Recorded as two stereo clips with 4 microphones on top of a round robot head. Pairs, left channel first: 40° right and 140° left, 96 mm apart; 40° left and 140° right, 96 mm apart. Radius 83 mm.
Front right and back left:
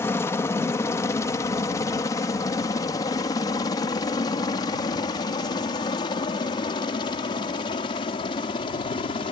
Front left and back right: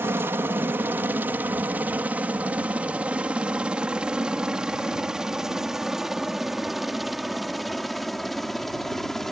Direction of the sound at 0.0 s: 85° right.